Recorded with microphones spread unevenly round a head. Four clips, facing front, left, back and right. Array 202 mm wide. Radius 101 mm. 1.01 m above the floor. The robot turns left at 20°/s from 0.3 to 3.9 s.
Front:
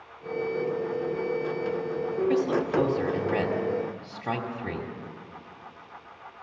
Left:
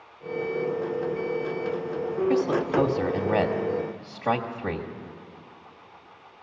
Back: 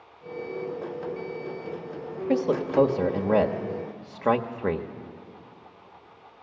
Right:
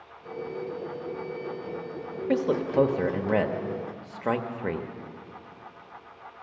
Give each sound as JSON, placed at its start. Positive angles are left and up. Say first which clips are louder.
{"t": 2.3, "sound": "a man speaking", "louder": "even, back 3 dB", "azimuth_deg": -135, "distance_m": 1.3}